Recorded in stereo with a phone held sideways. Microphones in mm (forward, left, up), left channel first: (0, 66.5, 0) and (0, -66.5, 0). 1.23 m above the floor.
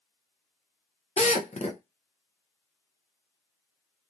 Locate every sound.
1.2 s a drill: 55° left (ahead or behind), 0.7 m